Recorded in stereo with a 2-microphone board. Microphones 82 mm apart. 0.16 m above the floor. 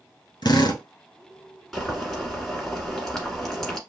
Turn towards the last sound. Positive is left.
turn(degrees=5)  # may be behind; listen again after turning